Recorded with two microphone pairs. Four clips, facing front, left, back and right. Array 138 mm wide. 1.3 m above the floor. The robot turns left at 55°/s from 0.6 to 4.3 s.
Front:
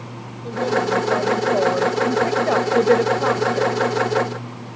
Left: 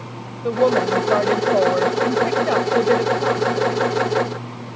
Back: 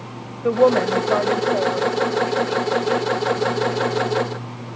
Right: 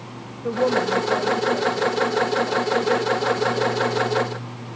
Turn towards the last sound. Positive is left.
turn(degrees=-50)